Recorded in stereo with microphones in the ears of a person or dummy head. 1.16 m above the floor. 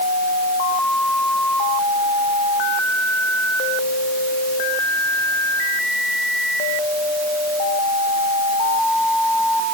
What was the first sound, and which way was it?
Only background noise.